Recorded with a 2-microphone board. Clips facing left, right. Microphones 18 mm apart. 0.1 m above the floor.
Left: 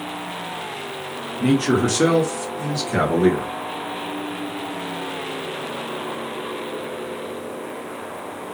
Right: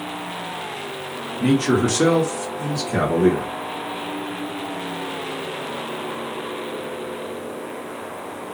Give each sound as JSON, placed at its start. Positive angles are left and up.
{"t": 1.4, "sound": "a man speaking", "side_deg": -15, "distance_m": 1.6}